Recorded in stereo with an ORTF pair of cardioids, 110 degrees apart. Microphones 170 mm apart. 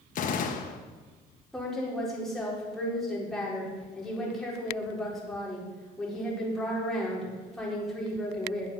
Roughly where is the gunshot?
Ahead left.